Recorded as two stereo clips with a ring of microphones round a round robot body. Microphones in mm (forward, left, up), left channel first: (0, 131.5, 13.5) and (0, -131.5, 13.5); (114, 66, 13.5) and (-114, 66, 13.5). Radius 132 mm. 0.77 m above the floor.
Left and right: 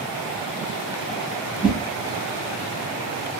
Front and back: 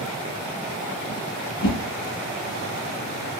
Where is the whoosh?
5° right, 1.6 m.